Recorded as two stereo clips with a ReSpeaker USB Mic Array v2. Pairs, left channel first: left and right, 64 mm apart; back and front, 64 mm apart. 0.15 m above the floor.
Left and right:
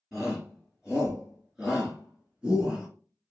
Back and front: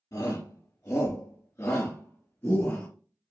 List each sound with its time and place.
0.1 s a shout: 175° right, 3 m; by 2.9 s 150° right, 1.9 m